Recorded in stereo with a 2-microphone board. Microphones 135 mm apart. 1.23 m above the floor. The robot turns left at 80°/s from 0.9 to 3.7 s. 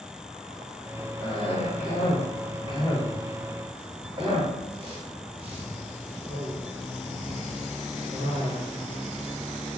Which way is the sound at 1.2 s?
25° left (ahead or behind).